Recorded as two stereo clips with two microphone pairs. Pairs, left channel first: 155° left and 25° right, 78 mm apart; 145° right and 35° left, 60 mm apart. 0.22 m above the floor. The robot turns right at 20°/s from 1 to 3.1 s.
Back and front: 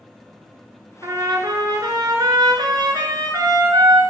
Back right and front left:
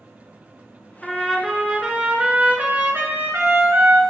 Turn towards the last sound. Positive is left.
turn(degrees=-15)